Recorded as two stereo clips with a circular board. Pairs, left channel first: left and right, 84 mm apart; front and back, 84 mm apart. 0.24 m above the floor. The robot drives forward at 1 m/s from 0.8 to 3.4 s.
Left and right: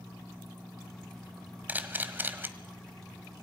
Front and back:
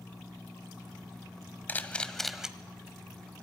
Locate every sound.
1.7 s a camera shutter: 40° right, 1.4 m; by 2.5 s 110° right, 1.3 m